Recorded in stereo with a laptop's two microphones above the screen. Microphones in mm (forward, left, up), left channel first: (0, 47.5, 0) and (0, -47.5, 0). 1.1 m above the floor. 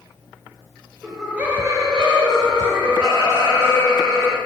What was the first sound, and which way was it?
Laughter, centre (ahead or behind).